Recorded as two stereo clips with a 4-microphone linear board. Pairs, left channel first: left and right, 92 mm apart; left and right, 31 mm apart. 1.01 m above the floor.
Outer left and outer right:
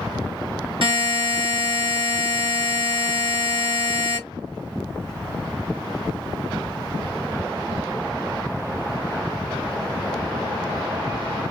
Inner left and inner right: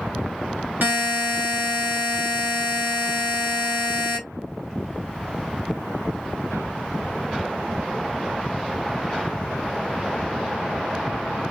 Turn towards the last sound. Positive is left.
turn(degrees=-65)  # may be behind; listen again after turning